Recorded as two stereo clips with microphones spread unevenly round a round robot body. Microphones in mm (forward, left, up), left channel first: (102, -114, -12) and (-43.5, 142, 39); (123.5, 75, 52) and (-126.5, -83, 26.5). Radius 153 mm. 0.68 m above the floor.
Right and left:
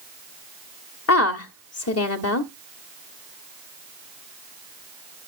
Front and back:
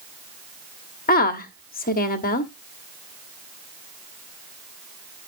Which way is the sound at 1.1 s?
30° right.